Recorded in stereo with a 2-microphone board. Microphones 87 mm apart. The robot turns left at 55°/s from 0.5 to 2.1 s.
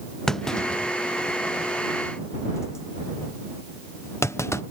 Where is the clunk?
5° left (ahead or behind); by 4.6 s 30° left (ahead or behind).